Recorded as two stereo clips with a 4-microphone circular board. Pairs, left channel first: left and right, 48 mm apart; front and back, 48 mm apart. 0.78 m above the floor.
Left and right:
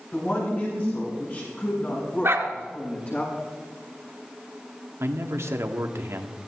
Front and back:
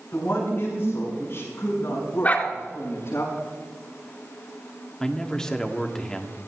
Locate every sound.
0.1 s a woman speaking: 45° left, 6.5 m; by 3.2 s 30° left, 8.5 m
2.2 s a dog barking: 55° right, 2.5 m
5.0 s a man speaking: 75° right, 1.7 m